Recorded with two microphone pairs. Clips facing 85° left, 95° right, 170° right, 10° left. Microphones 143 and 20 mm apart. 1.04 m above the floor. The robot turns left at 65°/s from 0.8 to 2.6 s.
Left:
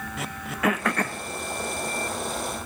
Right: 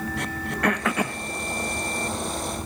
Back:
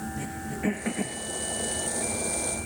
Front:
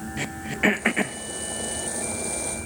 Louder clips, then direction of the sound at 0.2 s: Left 1 dB, front 11 dB; 5° left.